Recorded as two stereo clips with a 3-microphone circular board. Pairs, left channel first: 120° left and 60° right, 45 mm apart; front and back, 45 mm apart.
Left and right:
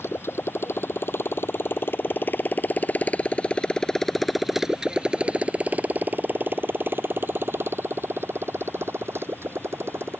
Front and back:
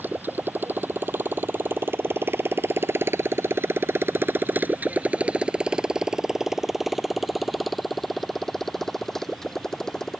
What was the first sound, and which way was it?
A motorcycle, 140° left.